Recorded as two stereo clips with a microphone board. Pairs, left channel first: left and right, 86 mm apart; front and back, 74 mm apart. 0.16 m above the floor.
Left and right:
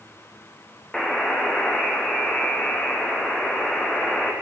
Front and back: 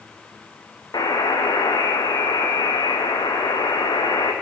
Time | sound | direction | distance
0.9 | a buzzer | 10° left | 1.4 m